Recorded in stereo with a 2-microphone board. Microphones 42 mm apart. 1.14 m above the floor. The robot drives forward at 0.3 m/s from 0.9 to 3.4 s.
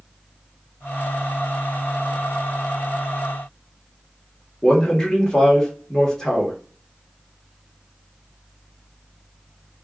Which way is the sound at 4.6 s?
15° left (ahead or behind).